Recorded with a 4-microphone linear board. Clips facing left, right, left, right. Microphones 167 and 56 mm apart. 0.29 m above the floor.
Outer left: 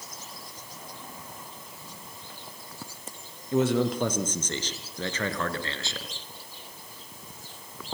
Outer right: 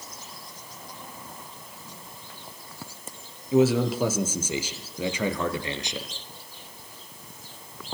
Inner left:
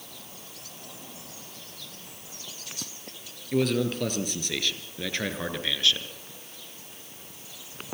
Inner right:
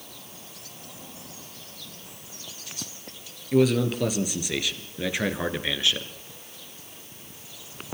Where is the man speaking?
5° right (ahead or behind), 5 m; by 6.1 s 20° right (ahead or behind), 4 m.